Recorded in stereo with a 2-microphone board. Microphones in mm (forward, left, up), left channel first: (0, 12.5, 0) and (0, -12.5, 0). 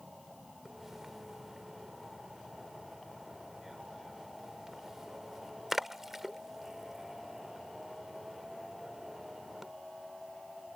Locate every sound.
0.7 s a splash: 10° right (ahead or behind)